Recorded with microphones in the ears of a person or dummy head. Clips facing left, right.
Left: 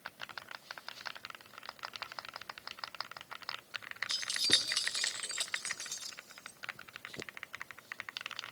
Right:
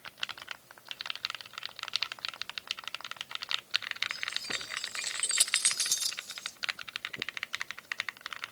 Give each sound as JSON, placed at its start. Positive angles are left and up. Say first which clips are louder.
{"t": 4.1, "sound": "keys jangling", "louder": "left 5 dB", "side_deg": 50, "distance_m": 1.5}